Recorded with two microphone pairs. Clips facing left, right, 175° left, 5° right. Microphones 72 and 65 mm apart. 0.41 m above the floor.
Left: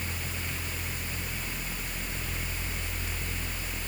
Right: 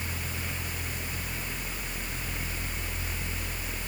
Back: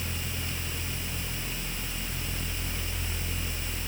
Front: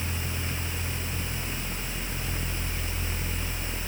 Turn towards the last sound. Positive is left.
No sound to turn to.